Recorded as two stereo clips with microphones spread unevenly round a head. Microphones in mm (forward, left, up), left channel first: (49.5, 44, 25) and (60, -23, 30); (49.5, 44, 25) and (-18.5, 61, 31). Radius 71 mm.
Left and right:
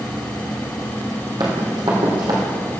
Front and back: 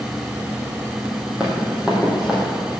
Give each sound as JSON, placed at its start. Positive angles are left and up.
{"t": 1.4, "sound": "running footsteps", "azimuth_deg": -115, "distance_m": 2.0}